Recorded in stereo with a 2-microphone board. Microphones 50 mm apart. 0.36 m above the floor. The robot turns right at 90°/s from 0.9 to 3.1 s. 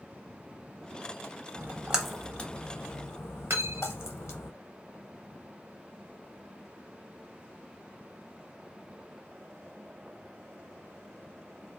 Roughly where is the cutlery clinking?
Right.